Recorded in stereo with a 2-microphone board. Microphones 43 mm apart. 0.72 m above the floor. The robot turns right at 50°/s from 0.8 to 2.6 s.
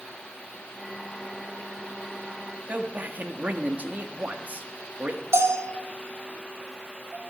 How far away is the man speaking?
About 1.4 m.